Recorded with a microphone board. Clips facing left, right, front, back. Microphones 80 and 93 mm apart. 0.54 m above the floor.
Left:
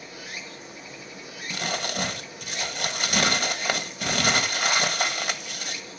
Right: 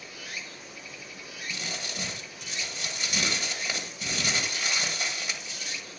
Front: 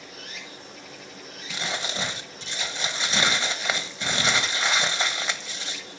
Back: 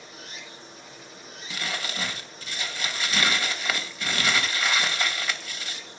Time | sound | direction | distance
0.0 | running water | 20° left | 7 m
1.5 | crumpling | 65° left | 1.7 m